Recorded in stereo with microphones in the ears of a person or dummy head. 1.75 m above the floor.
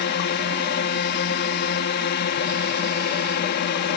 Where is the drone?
50° left (ahead or behind).